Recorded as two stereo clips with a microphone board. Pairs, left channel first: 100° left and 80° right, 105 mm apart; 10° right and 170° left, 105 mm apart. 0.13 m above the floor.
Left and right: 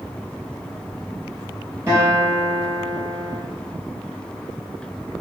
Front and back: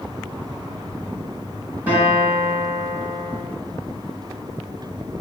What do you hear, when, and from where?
1.9 s a guitar: 125° right, 1.5 m